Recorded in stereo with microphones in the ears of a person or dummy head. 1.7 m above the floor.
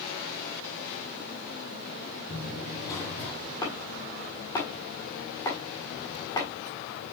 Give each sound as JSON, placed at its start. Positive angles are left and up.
{"t": 2.3, "sound": "running footsteps", "side_deg": 40, "distance_m": 3.0}
{"t": 3.6, "sound": "chopping", "side_deg": 5, "distance_m": 1.7}